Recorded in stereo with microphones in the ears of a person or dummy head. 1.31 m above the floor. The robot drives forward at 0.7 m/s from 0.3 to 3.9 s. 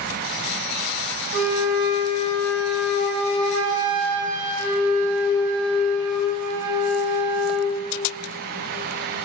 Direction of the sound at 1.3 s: 50° right (ahead or behind).